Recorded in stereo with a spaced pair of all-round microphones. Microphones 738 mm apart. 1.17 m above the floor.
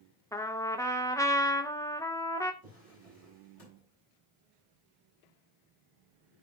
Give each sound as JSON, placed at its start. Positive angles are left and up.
{"t": 0.3, "sound": "a trumpet", "side_deg": 5, "distance_m": 0.6}
{"t": 2.6, "sound": "a drawer", "side_deg": 45, "distance_m": 5.0}